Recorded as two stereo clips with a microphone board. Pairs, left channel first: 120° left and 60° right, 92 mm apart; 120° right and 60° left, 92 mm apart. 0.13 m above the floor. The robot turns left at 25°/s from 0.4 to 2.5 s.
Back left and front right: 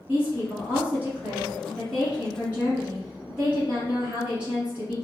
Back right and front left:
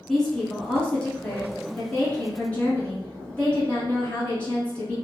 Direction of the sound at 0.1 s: 45° right.